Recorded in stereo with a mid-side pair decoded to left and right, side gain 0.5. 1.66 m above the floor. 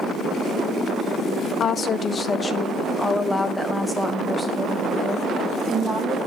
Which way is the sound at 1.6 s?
50° left.